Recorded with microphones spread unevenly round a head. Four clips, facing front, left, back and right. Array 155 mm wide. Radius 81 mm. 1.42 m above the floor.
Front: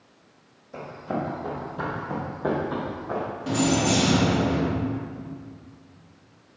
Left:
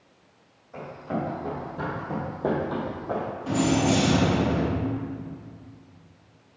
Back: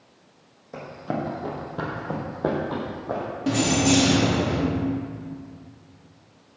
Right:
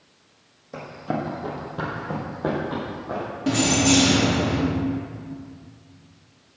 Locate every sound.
0.7 s running footsteps: 110° right, 3 m; by 3.2 s 150° left, 3 m
3.5 s keys jangling: 120° right, 1.7 m